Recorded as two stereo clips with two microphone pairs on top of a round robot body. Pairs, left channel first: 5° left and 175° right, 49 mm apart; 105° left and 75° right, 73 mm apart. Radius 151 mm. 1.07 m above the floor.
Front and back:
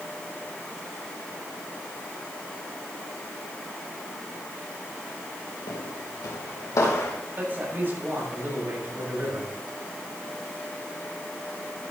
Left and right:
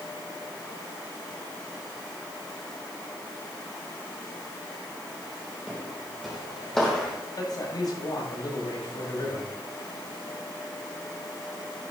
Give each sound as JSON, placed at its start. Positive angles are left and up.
{"t": 5.7, "sound": "footsteps", "azimuth_deg": 5, "distance_m": 2.0}
{"t": 7.4, "sound": "a man speaking", "azimuth_deg": 135, "distance_m": 7.0}